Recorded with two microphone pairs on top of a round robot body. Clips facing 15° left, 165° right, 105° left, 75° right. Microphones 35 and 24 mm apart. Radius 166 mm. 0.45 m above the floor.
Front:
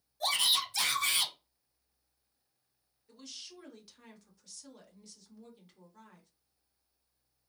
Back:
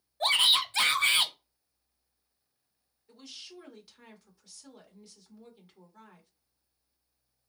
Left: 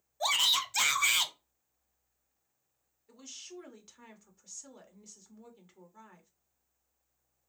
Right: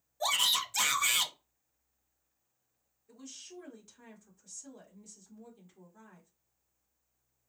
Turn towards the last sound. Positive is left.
turn(degrees=120)